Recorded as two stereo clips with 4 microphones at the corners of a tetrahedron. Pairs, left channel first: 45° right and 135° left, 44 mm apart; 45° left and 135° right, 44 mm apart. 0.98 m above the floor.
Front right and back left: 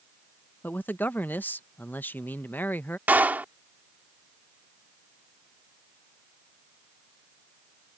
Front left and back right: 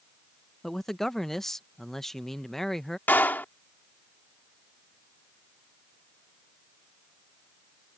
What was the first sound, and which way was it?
A man speaking, 35° right.